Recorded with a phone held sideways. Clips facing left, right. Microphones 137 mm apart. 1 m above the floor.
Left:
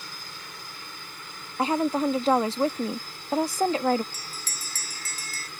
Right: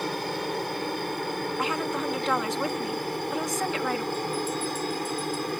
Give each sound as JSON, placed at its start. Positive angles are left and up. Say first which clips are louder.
{"t": 0.0, "sound": "a helicopter", "louder": "right 16 dB", "side_deg": -65}
{"t": 1.6, "sound": "a woman speaking", "louder": "left 8 dB", "side_deg": 35}
{"t": 4.1, "sound": "a bell", "louder": "right 15 dB", "side_deg": 85}